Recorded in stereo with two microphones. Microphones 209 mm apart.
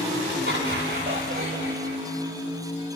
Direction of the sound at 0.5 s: 55° right (ahead or behind).